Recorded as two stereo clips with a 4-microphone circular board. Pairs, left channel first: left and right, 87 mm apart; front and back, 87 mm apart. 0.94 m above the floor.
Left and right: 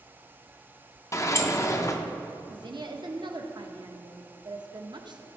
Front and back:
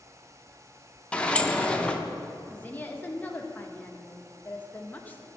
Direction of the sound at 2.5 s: 65° right.